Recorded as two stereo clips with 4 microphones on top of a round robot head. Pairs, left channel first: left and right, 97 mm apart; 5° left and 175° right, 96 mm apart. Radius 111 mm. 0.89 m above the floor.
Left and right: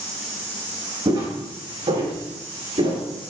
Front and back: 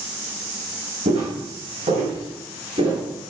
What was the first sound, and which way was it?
Footsteps, 145° right.